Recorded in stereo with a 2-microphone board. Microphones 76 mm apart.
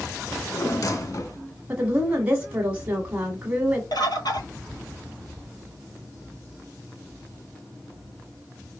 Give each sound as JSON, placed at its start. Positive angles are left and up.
{"t": 0.3, "sound": "a drawer", "side_deg": 55, "distance_m": 0.6}
{"t": 1.7, "sound": "a woman speaking", "side_deg": -20, "distance_m": 1.2}
{"t": 3.9, "sound": "a bird", "side_deg": 75, "distance_m": 0.7}